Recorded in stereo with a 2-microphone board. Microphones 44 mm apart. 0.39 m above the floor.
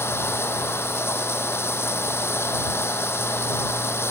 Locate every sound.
0.0 s running water: 70° left (ahead or behind)